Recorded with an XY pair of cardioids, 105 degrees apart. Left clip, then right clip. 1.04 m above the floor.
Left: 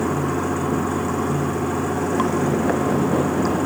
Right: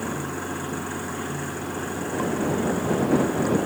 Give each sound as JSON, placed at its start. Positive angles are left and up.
{"t": 0.0, "sound": "running water", "azimuth_deg": 60}